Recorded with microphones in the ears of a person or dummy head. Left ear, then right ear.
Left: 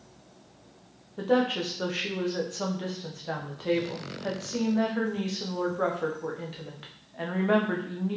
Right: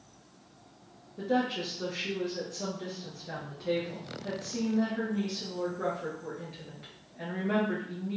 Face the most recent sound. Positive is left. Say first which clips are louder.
# left 5 dB
turn(degrees=40)  # may be behind; listen again after turning